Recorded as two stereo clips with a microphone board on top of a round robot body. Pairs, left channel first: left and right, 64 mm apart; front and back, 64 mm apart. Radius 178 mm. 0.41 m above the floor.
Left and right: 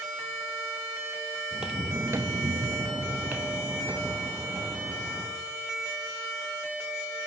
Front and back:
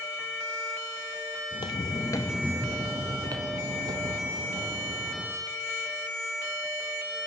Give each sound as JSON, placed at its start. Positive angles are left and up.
{"t": 1.5, "sound": "footsteps", "azimuth_deg": -10, "distance_m": 1.1}